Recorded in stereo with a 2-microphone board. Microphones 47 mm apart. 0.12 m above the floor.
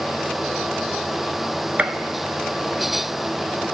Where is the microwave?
No microwave in this recording.